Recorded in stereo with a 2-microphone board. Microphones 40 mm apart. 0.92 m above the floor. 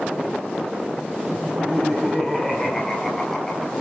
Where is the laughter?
5° right (ahead or behind), 7 m; by 3.7 s centre (ahead or behind), 5 m.